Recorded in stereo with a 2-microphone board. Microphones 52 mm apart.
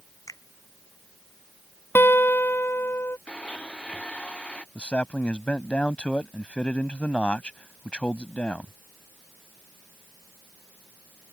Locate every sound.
0.3 s a finger snap: 85° left
1.9 s a guitar: 45° left (ahead or behind)
3.3 s a blender: 20° left (ahead or behind)
4.8 s a man speaking: 25° left (ahead or behind)